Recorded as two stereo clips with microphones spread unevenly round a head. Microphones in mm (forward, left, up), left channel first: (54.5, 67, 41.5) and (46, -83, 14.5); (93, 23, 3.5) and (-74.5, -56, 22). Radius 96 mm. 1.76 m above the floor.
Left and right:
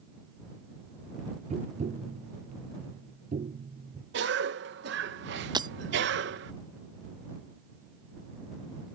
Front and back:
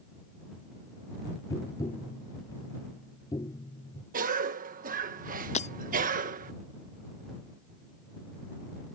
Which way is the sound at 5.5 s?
30° right.